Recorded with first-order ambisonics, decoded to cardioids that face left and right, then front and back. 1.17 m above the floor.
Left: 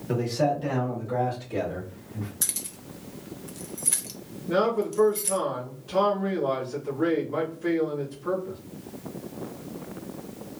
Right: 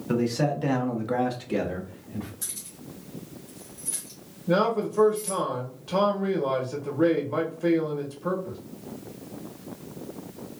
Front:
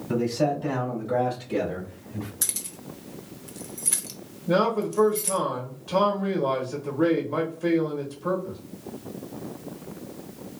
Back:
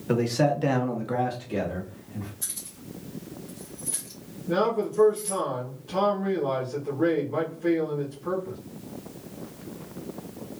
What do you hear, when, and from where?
0.1 s a man speaking: 175° right, 1.1 m; by 2.3 s 60° right, 1.1 m
2.4 s keys jangling: 40° left, 0.6 m
4.5 s a man speaking: 55° right, 0.9 m